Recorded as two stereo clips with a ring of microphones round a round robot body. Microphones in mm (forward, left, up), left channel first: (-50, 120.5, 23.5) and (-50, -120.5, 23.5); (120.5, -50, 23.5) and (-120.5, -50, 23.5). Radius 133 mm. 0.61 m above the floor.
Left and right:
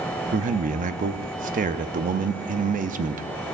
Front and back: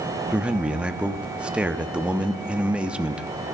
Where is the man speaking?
100° right, 0.7 m.